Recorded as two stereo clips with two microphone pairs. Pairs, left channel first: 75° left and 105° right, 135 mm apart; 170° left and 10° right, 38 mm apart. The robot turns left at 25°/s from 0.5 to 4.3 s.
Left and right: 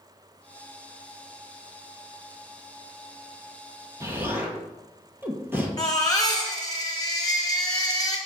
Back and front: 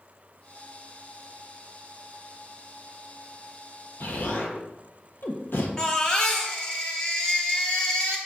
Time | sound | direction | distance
4.0 | an explosion | 175° right | 1.3 m
5.8 | a baby crying | 120° left | 1.5 m